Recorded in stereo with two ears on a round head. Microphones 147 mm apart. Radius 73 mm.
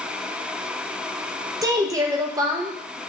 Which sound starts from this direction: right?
A woman speaking, at 1.6 s.